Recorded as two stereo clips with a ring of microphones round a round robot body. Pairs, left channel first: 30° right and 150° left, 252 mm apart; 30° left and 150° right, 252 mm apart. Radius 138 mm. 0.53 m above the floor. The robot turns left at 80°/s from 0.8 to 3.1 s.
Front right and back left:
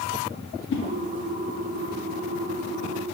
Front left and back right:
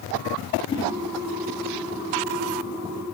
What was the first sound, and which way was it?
A whoosh, 35° right.